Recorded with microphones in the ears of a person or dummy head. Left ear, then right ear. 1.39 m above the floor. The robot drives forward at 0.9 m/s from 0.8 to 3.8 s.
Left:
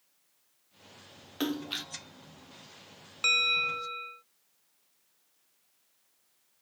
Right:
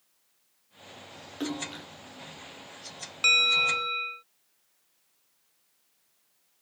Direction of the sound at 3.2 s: 10° right (ahead or behind).